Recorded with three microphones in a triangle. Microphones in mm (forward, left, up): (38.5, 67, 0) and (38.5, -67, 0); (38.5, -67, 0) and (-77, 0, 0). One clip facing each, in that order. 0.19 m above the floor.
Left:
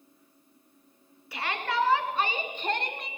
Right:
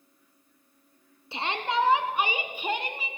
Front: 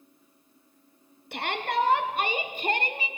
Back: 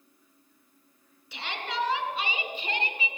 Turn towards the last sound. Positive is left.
turn(degrees=-5)